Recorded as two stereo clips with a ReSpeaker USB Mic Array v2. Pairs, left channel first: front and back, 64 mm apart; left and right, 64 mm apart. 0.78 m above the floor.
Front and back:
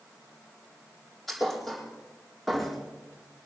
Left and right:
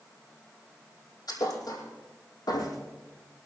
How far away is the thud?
About 4.5 m.